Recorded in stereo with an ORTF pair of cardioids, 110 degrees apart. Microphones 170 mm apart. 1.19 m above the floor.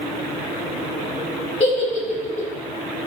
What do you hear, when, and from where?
1.6 s a giggle: 40° left, 0.9 m